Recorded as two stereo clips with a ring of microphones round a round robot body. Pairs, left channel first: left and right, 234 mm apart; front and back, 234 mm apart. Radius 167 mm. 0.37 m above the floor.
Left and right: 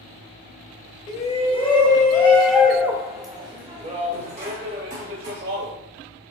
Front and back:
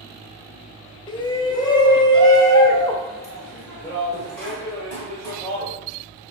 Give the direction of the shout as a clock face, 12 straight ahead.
10 o'clock.